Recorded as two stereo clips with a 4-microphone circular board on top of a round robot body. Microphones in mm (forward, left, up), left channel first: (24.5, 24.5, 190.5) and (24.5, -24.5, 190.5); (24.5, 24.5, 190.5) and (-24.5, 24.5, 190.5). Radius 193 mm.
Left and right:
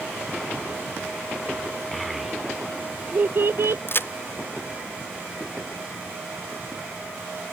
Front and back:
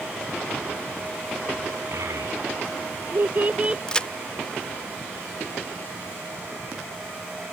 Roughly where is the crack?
Left.